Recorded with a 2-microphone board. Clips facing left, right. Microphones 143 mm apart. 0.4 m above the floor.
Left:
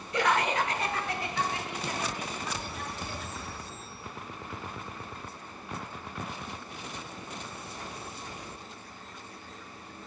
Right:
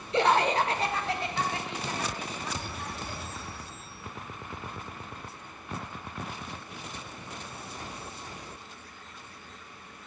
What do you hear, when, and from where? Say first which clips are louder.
0.1 s laughter: right 3 dB; 25° right (ahead or behind), 0.9 m